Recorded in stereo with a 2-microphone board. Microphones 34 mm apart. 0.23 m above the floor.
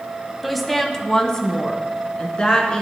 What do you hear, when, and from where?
0.4 s a woman speaking: centre (ahead or behind), 1.0 m; by 2.8 s 30° left (ahead or behind), 2.5 m